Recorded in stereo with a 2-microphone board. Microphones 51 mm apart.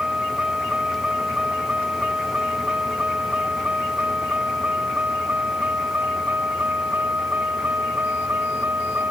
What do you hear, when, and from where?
0.0 s a vehicle: 20° right (ahead or behind); by 9.1 s 45° right (ahead or behind)